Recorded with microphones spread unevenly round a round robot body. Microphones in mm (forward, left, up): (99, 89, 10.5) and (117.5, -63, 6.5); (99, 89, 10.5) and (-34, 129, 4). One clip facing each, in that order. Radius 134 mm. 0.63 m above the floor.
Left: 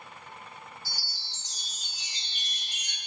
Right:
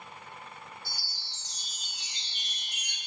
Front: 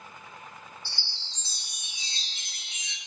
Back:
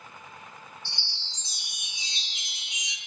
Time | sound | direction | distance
0.8 | a chime | 95° left | 3.5 m